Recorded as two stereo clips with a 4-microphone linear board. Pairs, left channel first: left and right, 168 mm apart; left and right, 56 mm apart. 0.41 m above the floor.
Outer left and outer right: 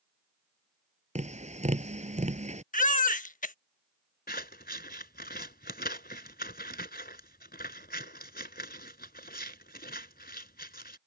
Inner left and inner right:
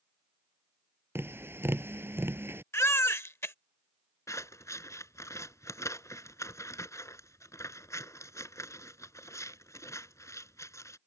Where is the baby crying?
55° left (ahead or behind).